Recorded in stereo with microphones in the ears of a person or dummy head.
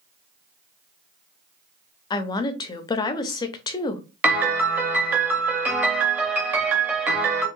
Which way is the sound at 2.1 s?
25° left (ahead or behind).